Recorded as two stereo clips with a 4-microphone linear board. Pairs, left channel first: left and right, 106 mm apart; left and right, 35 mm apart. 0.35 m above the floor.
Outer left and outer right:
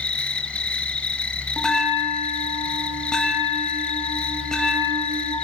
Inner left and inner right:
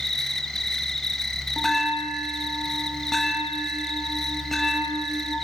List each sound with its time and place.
0.0 s an insect: 10° left (ahead or behind), 1.4 m
1.6 s a bell: 5° left (ahead or behind), 1.8 m